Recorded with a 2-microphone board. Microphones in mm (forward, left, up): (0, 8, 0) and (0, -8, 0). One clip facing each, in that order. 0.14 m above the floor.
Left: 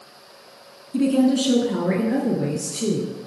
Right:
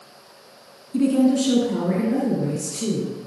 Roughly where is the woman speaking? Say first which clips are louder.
Even; centre.